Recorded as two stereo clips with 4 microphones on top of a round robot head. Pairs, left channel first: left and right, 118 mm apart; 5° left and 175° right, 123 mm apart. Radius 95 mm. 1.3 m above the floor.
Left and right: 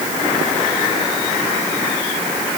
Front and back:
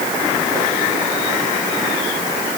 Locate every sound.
Only background noise.